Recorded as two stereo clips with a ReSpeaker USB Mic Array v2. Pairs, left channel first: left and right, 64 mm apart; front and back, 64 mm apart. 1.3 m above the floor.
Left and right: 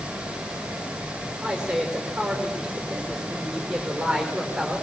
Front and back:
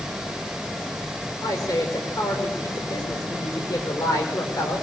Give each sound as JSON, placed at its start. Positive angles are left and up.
{"t": 1.4, "sound": "a woman speaking", "azimuth_deg": -15, "distance_m": 5.5}